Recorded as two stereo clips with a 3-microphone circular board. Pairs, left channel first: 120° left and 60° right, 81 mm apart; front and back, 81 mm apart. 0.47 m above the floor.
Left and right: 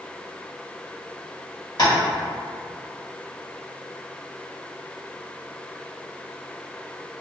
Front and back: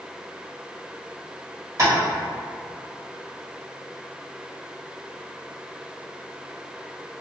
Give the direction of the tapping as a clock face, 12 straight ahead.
7 o'clock.